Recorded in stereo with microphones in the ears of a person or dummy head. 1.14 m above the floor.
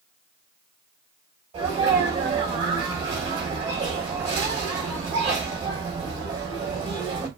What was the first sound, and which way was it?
A sneeze, 30° right (ahead or behind).